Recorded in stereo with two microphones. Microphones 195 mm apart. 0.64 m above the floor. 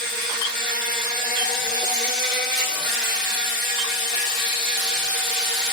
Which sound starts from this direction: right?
An insect, at 0.0 s.